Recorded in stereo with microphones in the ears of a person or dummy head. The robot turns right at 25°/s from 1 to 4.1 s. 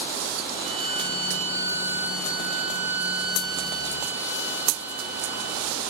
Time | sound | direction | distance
0.6 | a violin | 35° right | 1.8 m